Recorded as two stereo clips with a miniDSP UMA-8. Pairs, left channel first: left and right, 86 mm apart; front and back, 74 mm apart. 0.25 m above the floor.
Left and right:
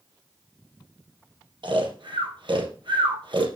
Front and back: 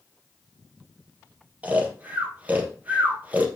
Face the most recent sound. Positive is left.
turn(degrees=-110)